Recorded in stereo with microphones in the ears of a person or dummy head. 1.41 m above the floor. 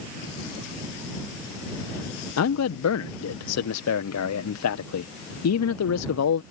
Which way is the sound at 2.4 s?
90° left.